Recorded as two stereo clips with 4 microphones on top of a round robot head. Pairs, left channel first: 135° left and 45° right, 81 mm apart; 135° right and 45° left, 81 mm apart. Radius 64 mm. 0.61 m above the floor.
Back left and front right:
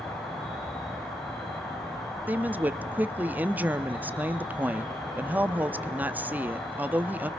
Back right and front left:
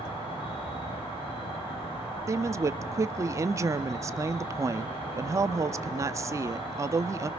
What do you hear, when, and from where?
0.0 s an insect: 140° right, 5.5 m
2.3 s a woman speaking: 15° left, 0.8 m